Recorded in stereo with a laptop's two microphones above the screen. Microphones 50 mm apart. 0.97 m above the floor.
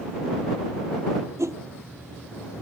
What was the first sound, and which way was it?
A whoosh, 75° right (ahead or behind).